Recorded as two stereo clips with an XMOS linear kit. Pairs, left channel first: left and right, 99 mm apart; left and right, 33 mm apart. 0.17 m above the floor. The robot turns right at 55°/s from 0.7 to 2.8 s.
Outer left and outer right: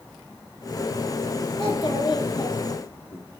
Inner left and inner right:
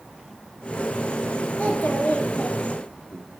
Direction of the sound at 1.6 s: 90° left.